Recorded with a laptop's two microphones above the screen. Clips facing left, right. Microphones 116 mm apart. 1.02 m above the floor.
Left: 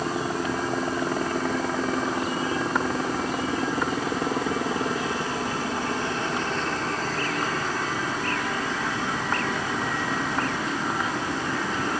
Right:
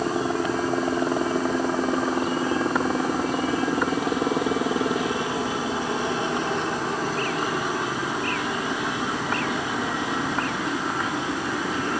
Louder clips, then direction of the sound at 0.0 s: Right 3 dB; 15° right (ahead or behind).